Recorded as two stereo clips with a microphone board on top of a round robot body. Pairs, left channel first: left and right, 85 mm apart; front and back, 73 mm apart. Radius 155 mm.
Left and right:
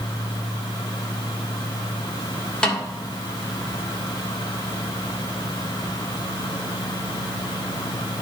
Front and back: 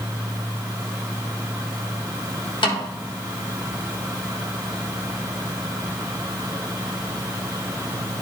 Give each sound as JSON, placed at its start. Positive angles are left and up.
{"t": 2.6, "sound": "a snare drum", "azimuth_deg": 5, "distance_m": 1.3}